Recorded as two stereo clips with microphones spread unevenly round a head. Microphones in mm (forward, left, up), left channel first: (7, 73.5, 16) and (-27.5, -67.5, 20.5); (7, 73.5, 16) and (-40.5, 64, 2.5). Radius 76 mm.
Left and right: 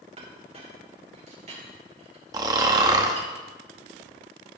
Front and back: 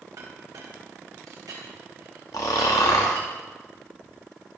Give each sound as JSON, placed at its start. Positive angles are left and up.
{"t": 0.2, "sound": "a clink", "azimuth_deg": -155, "distance_m": 3.0}
{"t": 2.3, "sound": "snoring", "azimuth_deg": -35, "distance_m": 1.0}